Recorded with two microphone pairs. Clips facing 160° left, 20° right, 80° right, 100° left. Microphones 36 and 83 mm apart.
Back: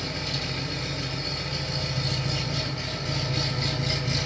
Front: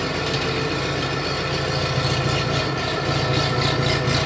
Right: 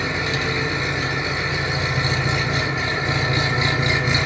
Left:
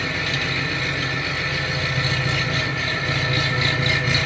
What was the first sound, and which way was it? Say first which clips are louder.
An engine running: front 8 dB, right 2 dB; 15° right.